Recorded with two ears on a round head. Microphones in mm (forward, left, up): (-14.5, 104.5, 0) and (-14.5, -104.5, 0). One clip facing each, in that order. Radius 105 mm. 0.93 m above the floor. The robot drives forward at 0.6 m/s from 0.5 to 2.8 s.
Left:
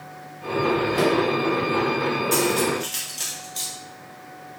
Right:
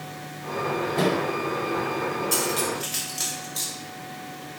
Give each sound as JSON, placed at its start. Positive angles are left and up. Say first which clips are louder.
{"t": 0.9, "sound": "a microwave", "louder": "left 1 dB", "side_deg": 15, "distance_m": 2.0}
{"t": 2.3, "sound": "cutlery clinking", "louder": "left 6 dB", "side_deg": -10, "distance_m": 0.8}